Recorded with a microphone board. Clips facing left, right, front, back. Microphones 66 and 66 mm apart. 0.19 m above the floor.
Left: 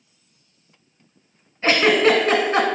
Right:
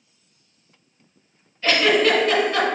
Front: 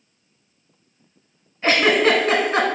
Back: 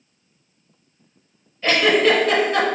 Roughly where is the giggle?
Ahead left.